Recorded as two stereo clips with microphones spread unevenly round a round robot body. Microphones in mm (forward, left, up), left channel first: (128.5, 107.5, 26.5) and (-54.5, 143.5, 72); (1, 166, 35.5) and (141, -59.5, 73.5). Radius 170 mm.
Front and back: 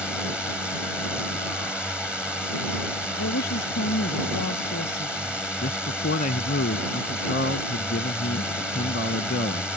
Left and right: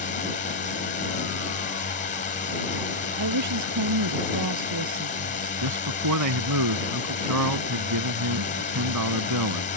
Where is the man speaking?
60° right.